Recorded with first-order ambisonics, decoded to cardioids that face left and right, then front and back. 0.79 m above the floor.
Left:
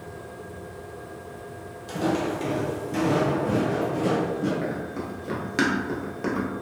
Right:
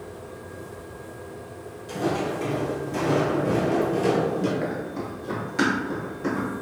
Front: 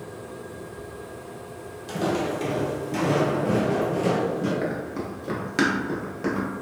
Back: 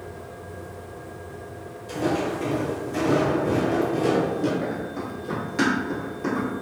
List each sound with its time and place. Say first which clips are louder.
1.9 s footsteps: even, back 1 dB; 35° left, 1.2 m; by 4.5 s 110° right, 0.8 m
4.6 s running footsteps: right 1 dB, even; 20° right, 0.8 m; by 6.5 s 60° left, 1.3 m